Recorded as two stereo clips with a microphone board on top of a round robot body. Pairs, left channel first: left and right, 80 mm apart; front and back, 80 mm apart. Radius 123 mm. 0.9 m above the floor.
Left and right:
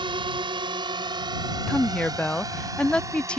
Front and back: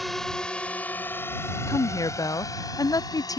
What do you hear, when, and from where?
0.0 s a drone: 90° right; by 3.4 s 40° right
1.7 s a woman speaking: 15° left